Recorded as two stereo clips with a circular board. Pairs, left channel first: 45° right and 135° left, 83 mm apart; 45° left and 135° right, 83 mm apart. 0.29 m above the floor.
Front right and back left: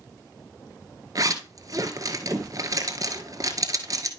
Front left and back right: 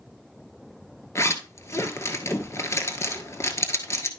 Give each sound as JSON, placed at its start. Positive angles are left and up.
{"t": 1.1, "sound": "a zipper", "azimuth_deg": 95, "distance_m": 1.4}